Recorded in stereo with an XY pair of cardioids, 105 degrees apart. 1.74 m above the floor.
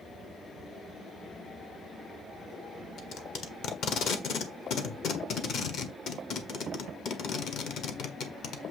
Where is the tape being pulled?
70° left, 1.3 m.